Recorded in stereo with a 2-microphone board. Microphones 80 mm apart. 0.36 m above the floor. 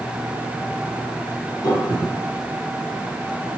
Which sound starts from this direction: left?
A piano, at 1.6 s.